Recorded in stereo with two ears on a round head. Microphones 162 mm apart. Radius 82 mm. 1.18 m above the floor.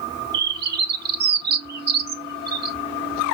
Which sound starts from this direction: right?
A bird, at 0.3 s.